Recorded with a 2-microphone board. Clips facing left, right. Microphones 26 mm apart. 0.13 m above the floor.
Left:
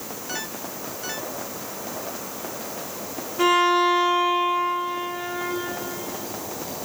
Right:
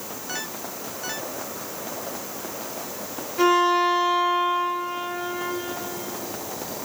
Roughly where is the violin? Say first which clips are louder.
Even; right.